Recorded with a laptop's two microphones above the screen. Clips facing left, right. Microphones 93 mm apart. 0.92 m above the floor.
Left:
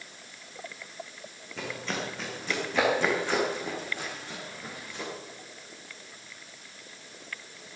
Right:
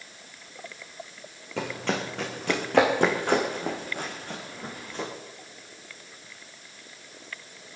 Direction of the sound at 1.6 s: 70° right (ahead or behind).